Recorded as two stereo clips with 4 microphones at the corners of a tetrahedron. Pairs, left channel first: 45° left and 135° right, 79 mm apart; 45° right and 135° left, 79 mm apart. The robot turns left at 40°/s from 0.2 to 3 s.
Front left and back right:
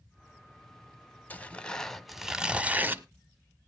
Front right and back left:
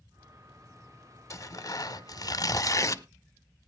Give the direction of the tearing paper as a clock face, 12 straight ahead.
12 o'clock.